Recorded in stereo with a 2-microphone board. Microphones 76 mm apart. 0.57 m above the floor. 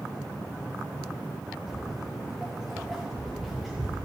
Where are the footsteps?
5° right (ahead or behind), 1.2 m; by 4.0 s centre (ahead or behind), 3.5 m.